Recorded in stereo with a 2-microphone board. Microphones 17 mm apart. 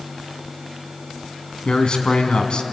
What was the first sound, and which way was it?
A man speaking, 50° left (ahead or behind).